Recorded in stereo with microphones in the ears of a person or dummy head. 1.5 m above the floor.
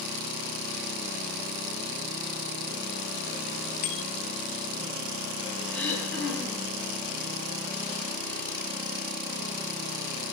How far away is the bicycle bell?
About 2.5 m.